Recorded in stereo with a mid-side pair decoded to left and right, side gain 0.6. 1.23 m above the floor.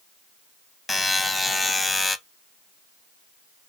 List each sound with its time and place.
0.9 s a buzzer: 15° left, 0.6 m